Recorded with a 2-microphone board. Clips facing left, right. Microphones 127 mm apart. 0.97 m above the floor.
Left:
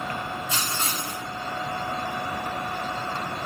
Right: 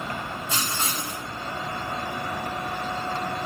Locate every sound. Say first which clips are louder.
0.5 s writing: even; 30° right (ahead or behind), 1.7 m